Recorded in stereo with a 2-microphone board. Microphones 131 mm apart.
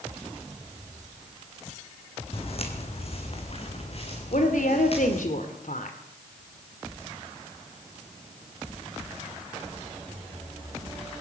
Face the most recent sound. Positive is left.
turn(degrees=80)